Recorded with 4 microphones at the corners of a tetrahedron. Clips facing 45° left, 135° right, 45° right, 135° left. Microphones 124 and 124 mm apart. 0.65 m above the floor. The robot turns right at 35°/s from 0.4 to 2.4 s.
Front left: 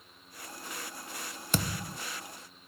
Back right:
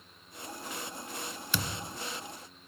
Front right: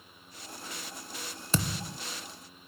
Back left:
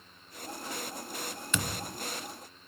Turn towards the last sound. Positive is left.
turn(degrees=35)